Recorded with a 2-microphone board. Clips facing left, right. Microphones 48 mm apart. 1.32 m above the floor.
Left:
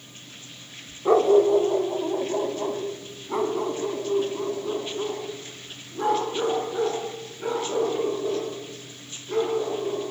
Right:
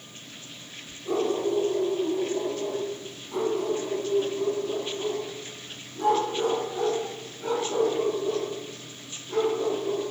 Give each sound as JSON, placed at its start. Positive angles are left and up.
{"t": 1.1, "sound": "a dog barking", "side_deg": 65, "distance_m": 2.5}